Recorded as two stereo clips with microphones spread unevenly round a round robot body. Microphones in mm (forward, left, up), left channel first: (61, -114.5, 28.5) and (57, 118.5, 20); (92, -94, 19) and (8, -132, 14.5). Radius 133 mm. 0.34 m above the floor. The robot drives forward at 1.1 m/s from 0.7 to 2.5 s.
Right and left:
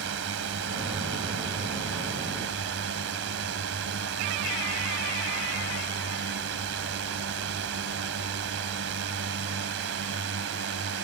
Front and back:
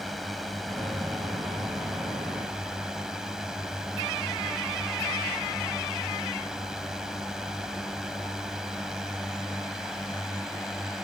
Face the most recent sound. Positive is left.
turn(degrees=120)